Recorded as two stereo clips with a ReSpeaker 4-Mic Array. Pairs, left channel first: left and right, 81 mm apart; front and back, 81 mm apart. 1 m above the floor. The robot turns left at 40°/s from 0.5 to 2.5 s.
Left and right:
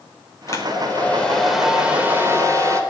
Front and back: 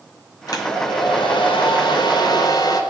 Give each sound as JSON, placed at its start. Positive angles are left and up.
{"t": 0.5, "sound": "a hair dryer", "azimuth_deg": 40, "distance_m": 4.0}